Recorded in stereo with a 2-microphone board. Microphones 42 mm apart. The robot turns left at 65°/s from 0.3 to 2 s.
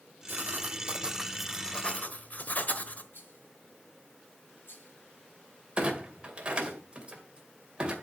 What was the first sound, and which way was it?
Writing, 110° right.